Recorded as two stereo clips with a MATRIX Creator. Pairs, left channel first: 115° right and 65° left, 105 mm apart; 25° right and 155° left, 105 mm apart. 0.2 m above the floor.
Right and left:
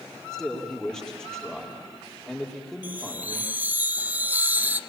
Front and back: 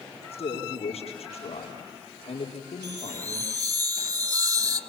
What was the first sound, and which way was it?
A man speaking, 30° right.